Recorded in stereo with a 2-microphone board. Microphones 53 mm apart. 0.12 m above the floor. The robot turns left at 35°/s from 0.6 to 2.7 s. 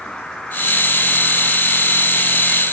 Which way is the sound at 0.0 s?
10° left.